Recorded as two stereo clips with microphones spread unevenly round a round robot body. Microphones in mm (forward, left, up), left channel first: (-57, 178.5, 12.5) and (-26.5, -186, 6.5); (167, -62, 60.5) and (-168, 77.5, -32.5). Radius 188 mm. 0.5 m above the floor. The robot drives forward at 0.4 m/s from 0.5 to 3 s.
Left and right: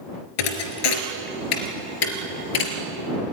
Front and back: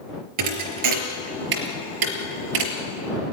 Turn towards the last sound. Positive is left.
turn(degrees=130)